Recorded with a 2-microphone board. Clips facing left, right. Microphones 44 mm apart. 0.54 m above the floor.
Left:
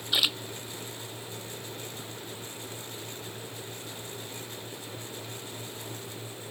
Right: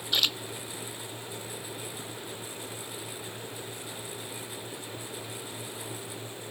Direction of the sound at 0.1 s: 10° left (ahead or behind).